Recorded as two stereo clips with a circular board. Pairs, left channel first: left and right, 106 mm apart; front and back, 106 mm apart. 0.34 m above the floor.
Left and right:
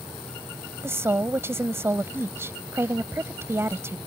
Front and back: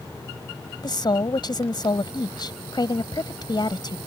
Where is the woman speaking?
30° right.